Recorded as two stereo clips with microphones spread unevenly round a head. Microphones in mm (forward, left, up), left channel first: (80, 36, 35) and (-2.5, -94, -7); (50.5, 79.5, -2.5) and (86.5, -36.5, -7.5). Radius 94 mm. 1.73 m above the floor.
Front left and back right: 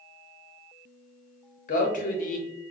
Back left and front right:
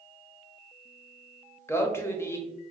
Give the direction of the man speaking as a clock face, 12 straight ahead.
11 o'clock.